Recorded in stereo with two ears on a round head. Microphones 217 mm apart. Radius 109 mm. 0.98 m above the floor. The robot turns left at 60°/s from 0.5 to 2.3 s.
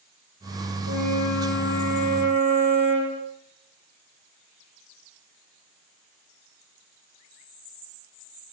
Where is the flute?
95° left, 6.5 m; by 3.2 s 10° left, 6.5 m.